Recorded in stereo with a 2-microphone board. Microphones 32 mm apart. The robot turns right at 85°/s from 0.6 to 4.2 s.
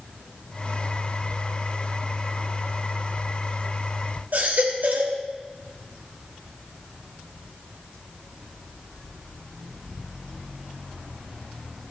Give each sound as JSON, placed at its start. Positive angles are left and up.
{"t": 4.3, "sound": "a baby crying", "side_deg": -65, "distance_m": 2.5}